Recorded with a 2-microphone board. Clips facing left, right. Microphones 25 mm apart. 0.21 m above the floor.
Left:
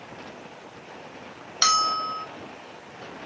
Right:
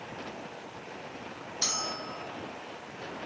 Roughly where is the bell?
Left.